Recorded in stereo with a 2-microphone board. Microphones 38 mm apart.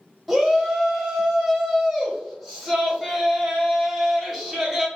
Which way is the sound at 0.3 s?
5° right (ahead or behind).